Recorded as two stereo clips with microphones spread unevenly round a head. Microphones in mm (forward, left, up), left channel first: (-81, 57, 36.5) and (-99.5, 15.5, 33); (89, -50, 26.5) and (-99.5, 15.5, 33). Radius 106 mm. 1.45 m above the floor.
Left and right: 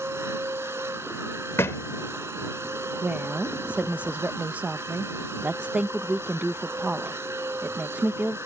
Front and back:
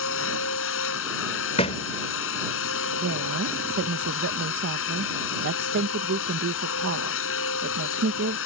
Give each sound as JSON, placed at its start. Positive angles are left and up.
{"t": 0.0, "sound": "a machine running", "azimuth_deg": -40}
{"t": 1.6, "sound": "a thud", "azimuth_deg": 40}
{"t": 3.0, "sound": "a woman speaking", "azimuth_deg": -170}